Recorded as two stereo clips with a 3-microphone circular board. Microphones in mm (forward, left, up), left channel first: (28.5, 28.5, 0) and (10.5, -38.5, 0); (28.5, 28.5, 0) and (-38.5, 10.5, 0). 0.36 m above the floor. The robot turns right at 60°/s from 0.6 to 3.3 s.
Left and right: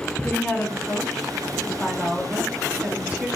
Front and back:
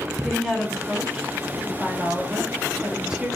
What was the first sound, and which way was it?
A woman speaking, 105° left.